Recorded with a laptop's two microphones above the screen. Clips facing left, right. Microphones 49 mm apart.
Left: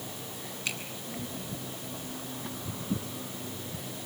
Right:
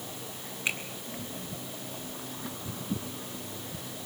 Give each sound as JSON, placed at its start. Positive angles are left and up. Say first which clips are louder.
{"t": 0.7, "sound": "a finger snap", "louder": "right 4 dB", "side_deg": -30, "distance_m": 8.0}